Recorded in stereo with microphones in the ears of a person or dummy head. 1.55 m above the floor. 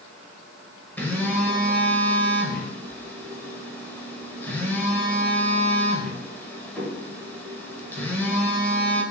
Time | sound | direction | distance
1.0 | a phone buzzing | 15° left (ahead or behind) | 1.0 m